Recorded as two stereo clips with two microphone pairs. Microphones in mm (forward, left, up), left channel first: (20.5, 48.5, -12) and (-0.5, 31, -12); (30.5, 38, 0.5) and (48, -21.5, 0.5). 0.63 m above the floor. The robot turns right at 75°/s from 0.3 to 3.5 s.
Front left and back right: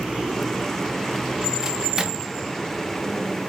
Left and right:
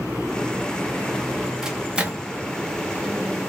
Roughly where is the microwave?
Behind right.